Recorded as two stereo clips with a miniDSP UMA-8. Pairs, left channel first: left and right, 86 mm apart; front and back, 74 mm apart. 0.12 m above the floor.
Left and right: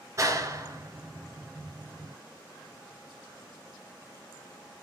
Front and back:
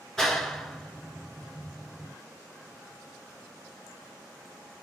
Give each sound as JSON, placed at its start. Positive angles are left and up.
{"t": 0.2, "sound": "a clap", "azimuth_deg": -85, "distance_m": 1.4}